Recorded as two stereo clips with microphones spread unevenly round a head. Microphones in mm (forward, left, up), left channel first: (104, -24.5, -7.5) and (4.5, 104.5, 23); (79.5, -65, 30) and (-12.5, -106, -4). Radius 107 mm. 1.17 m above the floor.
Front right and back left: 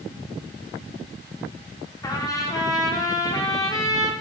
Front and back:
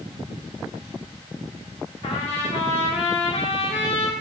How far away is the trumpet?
About 1.8 m.